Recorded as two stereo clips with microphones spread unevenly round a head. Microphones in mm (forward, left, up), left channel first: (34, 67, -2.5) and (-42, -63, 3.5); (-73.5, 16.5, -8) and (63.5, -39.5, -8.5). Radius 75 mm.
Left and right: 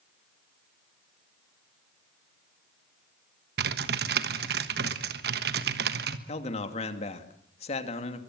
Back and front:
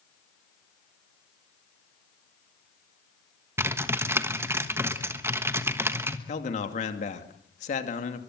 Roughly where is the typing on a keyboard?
Right.